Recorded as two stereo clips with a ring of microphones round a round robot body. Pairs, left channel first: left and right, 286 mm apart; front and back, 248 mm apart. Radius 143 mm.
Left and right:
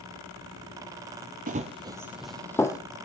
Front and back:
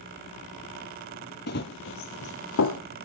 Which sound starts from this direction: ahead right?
Running footsteps, at 1.5 s.